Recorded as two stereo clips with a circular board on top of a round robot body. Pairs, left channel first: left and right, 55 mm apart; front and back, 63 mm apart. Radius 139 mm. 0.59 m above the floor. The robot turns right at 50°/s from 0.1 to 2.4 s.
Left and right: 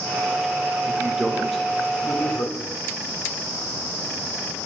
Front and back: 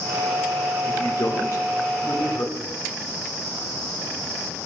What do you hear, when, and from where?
0.8 s a man speaking: 30° right, 2.5 m; by 2.6 s 50° left, 2.5 m